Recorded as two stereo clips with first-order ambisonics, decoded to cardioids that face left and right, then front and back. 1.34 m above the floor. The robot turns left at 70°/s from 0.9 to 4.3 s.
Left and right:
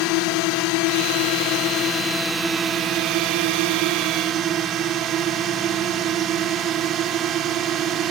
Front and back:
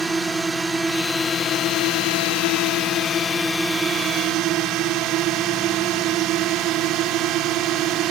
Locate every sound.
0.0 s a drone: 100° left; by 8.1 s 140° right